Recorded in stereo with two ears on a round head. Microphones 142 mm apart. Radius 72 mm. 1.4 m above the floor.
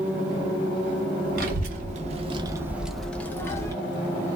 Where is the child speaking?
55° right (ahead or behind), 0.8 m; by 3.7 s 20° left (ahead or behind), 1.0 m.